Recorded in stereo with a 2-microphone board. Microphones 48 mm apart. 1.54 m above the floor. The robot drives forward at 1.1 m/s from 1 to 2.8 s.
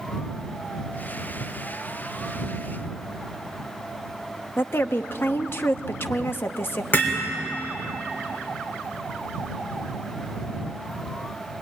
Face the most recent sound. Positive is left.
turn(degrees=45)  # may be behind; listen again after turning